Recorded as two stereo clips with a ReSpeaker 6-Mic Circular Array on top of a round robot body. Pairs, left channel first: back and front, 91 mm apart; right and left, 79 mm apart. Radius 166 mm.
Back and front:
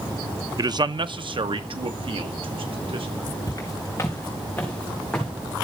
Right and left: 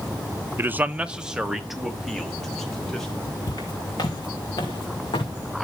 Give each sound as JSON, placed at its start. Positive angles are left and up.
{"t": 0.6, "sound": "a man speaking", "azimuth_deg": 35, "distance_m": 1.0}
{"t": 3.5, "sound": "footsteps", "azimuth_deg": -125, "distance_m": 3.5}